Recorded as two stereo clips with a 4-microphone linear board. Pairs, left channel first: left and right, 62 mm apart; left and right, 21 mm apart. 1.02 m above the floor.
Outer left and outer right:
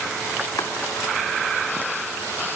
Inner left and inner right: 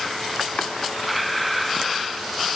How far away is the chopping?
About 1.2 m.